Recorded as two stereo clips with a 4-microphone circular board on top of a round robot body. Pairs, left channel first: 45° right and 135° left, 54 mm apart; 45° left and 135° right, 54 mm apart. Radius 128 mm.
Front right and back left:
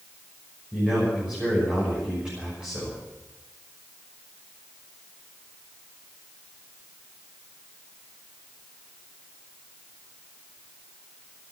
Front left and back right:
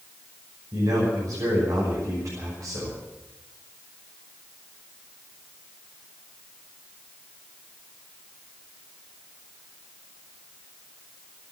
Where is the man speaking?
155° right, 6.5 m.